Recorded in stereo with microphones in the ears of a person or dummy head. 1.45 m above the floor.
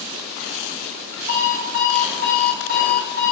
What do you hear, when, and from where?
1.3 s an alarm clock: 70° left (ahead or behind), 2.5 m